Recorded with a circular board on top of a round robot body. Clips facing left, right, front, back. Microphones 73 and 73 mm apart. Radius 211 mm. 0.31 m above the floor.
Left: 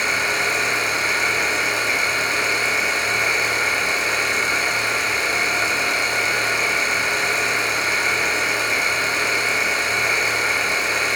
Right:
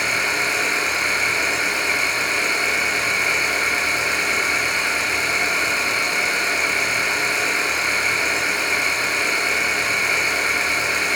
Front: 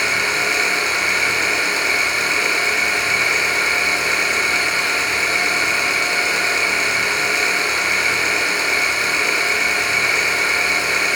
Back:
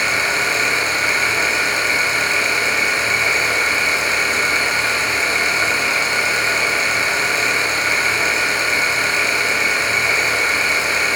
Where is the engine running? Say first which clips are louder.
Left 1 dB, back 1 dB; 125° left, 1.0 m.